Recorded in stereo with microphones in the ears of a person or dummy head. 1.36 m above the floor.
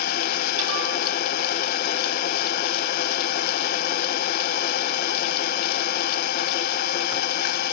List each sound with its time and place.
0.0 s an engine running: 60° left (ahead or behind)